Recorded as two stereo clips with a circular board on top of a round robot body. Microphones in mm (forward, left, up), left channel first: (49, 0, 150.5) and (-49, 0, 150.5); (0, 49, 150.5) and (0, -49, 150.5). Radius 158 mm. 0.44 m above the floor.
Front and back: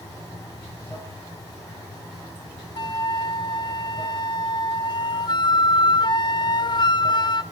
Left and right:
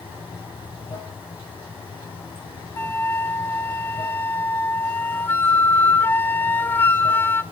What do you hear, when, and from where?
0.0 s running water: 55° left, 5.5 m
2.8 s a flute: 25° left, 0.5 m